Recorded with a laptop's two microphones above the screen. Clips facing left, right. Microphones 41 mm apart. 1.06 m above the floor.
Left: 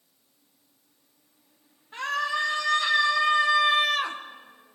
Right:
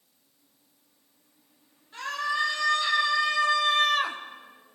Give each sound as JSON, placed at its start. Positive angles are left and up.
{"t": 1.9, "sound": "a scream", "side_deg": 50, "distance_m": 1.5}